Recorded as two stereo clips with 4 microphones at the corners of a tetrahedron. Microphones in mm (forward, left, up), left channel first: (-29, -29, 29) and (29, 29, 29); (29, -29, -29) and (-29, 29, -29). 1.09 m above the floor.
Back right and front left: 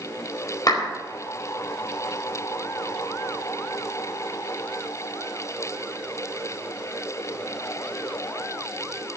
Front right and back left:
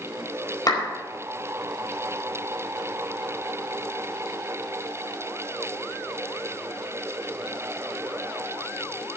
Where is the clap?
90° right, 4.5 m.